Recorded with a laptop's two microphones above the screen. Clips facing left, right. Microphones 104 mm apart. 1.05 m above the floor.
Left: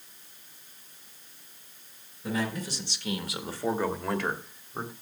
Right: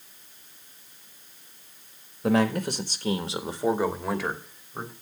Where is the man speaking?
70° right (ahead or behind), 1.8 m; by 4.9 s 10° left (ahead or behind), 4 m.